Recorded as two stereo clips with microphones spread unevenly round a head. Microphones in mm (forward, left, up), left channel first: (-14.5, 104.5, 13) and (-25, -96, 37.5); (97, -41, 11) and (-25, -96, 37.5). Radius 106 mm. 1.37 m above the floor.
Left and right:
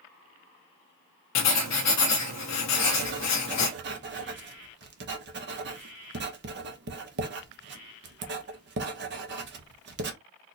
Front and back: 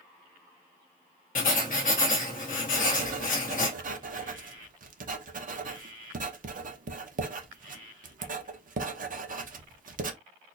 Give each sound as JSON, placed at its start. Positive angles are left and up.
{"t": 1.4, "sound": "writing", "azimuth_deg": 80, "distance_m": 0.8}
{"t": 2.7, "sound": "writing", "azimuth_deg": -130, "distance_m": 0.8}